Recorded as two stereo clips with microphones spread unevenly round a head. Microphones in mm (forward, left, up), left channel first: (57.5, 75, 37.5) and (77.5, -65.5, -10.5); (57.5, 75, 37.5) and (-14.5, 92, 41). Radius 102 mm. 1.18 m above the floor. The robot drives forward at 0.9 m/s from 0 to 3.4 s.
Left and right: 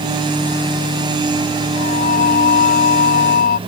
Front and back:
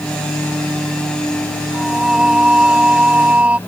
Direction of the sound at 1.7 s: 80° left.